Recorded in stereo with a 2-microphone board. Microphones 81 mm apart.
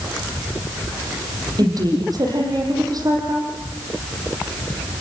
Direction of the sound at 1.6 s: 50° right (ahead or behind).